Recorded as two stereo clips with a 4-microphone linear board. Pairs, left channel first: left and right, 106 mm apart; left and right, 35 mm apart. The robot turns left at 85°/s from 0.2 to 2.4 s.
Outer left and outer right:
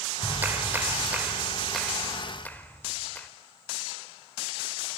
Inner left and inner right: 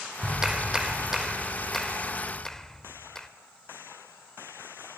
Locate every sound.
0.2 s a clap: 15° right (ahead or behind), 1.0 m; by 3.3 s 15° left (ahead or behind), 1.0 m